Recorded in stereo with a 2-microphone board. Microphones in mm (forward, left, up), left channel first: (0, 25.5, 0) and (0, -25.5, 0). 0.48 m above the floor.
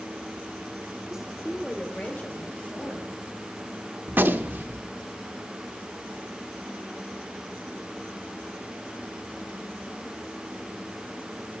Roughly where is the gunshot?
Right.